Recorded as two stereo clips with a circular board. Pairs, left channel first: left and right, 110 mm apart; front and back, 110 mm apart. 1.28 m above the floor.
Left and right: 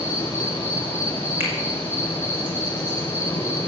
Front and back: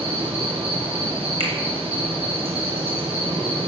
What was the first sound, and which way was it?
An insect, 165° left.